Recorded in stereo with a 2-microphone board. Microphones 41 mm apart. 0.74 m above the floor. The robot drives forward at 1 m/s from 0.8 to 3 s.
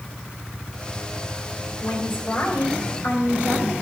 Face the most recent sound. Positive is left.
turn(degrees=75)  # may be behind; listen again after turning